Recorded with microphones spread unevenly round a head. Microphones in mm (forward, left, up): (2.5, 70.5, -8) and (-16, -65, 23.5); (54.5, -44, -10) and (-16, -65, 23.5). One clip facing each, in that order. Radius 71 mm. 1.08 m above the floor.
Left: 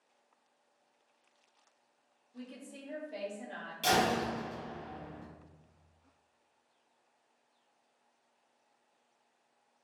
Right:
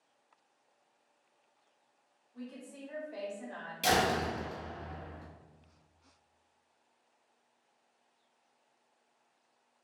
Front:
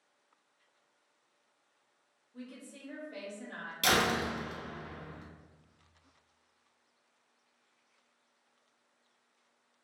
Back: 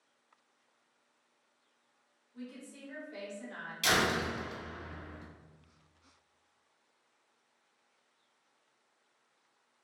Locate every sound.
2.3 s a woman speaking: 40° left, 1.0 m
3.8 s a door slam: 15° right, 0.6 m